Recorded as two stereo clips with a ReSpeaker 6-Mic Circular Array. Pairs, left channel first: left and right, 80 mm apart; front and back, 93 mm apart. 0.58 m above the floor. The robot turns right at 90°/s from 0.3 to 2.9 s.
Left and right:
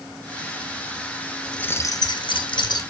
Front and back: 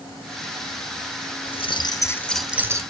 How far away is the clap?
No clap in this recording.